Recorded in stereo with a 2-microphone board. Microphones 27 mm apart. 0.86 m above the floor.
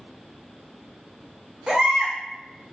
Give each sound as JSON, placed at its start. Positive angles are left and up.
{"t": 1.7, "sound": "a baby crying", "side_deg": -35, "distance_m": 0.7}